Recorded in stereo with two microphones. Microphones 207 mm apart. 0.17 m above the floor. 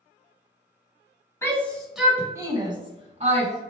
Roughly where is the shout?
Centre.